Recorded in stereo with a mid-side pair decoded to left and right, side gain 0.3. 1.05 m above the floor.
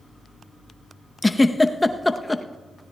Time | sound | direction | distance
1.2 | a giggle | 20° left | 0.8 m